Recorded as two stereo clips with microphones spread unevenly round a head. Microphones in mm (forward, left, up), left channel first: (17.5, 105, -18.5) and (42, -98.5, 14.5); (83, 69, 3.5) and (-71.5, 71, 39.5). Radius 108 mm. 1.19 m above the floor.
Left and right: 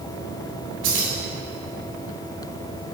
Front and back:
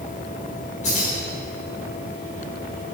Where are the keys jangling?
60° right, 3 m.